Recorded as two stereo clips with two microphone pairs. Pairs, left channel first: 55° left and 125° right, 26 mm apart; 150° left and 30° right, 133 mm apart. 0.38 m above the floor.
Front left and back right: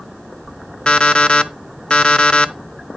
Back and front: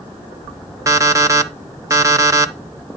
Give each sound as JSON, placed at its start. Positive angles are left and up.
{"t": 0.9, "sound": "an alarm clock", "azimuth_deg": 25, "distance_m": 0.7}